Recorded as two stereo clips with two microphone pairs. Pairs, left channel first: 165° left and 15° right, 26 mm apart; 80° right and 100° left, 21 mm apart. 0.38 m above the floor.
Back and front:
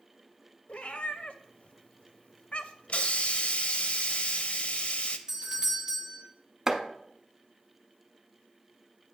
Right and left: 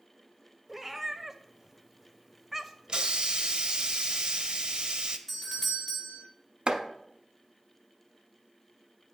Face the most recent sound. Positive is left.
turn(degrees=60)